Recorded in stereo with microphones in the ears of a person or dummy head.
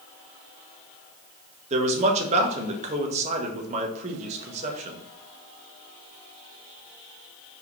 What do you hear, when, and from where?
1.7 s a man speaking: 35° right (ahead or behind), 1.2 m